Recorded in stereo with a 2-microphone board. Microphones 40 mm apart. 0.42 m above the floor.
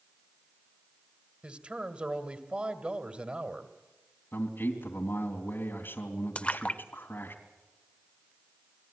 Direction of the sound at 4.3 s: 60° left (ahead or behind).